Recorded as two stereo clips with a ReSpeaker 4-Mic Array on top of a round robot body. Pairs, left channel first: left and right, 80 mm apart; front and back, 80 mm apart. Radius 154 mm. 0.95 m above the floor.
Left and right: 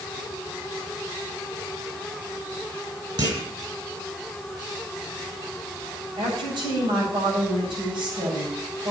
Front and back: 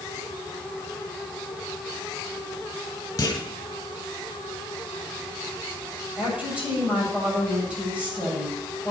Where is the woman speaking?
105° right, 7 m.